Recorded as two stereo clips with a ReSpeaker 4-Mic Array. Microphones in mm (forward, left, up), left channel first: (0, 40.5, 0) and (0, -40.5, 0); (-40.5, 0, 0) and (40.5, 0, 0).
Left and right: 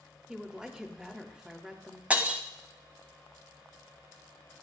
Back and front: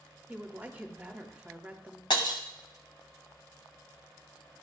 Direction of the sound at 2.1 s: 165° right.